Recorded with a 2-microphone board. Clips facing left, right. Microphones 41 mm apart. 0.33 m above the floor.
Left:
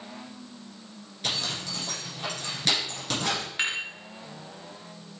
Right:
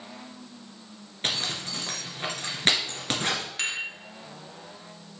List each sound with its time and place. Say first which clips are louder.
1.2 s a zipper: right 1 dB; 45° right (ahead or behind), 1.9 m
3.6 s dishes clattering: left 4 dB; 25° left (ahead or behind), 1.8 m